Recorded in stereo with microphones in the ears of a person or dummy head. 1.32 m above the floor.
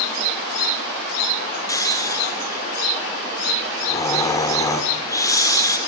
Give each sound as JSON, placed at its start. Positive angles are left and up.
{"t": 1.7, "sound": "snoring", "side_deg": 20, "distance_m": 1.6}